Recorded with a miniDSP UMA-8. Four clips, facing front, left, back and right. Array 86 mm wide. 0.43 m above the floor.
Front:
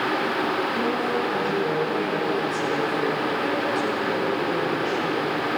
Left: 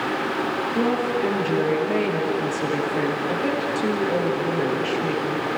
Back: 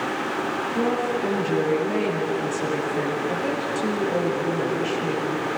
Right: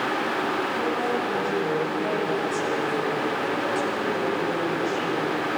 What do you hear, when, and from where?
0.7 s a woman speaking: 105° left, 9.5 m